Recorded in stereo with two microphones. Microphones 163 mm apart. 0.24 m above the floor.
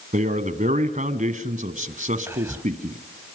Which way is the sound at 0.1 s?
50° right (ahead or behind).